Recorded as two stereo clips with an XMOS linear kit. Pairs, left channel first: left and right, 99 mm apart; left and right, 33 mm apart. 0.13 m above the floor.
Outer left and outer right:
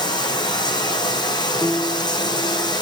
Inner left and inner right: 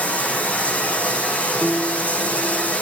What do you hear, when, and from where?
0.0 s running water: 45° left (ahead or behind), 1.4 m
1.6 s a piano: 25° left (ahead or behind), 1.8 m